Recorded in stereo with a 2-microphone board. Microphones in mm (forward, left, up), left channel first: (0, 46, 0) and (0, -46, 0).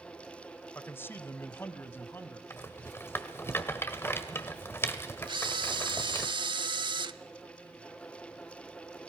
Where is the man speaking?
20° left (ahead or behind), 0.9 m; by 2.4 s 25° left (ahead or behind), 2.0 m.